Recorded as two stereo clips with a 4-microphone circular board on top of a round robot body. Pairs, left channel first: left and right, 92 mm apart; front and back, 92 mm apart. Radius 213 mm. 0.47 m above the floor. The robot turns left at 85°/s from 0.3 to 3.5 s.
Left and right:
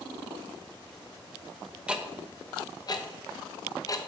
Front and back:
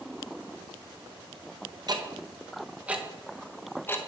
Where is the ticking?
165° right, 0.9 m; by 4.0 s 60° left, 0.9 m.